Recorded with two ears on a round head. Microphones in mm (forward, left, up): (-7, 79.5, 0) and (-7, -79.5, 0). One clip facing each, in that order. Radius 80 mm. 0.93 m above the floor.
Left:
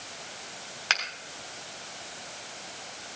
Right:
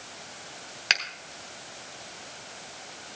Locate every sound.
0.9 s a finger snap: 20° right (ahead or behind), 3.5 m